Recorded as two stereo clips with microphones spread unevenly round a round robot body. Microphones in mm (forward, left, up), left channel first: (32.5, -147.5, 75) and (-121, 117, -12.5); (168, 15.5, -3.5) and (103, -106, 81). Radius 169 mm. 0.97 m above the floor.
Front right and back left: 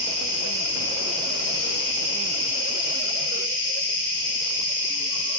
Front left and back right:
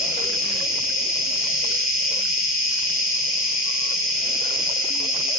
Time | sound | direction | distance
0.0 | an insect | 45° right | 2.5 m